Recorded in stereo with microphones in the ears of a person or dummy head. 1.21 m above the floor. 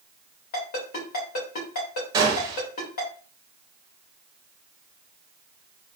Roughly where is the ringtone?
Left.